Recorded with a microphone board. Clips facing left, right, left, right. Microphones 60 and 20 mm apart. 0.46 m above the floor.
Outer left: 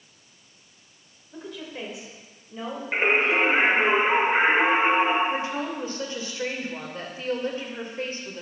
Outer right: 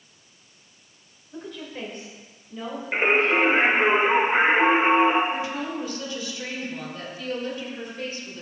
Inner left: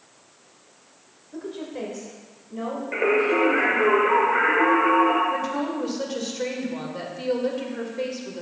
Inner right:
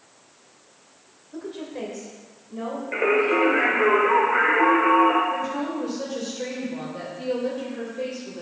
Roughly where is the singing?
Centre.